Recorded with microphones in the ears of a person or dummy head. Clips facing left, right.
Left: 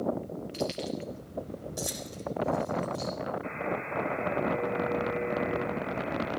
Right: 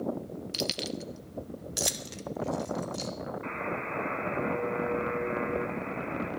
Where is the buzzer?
70° right (ahead or behind), 4 m.